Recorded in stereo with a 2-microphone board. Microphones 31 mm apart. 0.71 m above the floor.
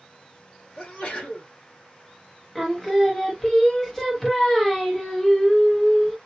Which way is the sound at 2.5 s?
20° left (ahead or behind).